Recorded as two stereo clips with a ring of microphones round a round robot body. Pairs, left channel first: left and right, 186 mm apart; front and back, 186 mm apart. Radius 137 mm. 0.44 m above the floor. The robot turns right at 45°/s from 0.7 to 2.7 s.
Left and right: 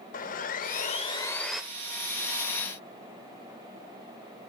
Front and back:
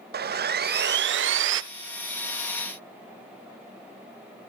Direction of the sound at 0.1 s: 140° left.